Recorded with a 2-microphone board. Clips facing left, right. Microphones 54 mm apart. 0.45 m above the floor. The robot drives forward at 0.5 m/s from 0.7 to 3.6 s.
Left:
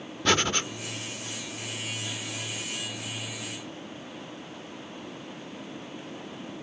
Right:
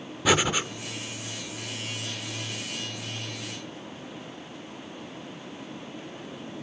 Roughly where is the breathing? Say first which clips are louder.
Right 2 dB; centre.